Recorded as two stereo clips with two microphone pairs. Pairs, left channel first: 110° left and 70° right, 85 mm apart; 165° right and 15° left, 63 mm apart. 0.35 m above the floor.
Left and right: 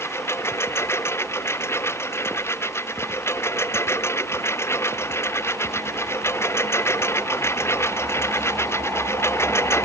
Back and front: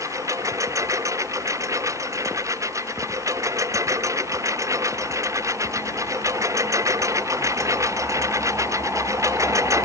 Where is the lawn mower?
50° left; by 9.8 s 55° left.